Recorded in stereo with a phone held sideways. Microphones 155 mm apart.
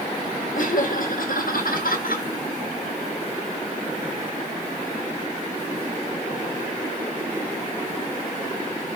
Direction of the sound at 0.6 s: 65° left (ahead or behind).